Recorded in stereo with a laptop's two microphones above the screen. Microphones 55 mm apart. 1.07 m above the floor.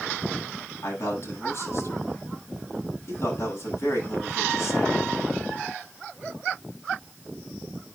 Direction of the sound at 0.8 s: 50° left (ahead or behind).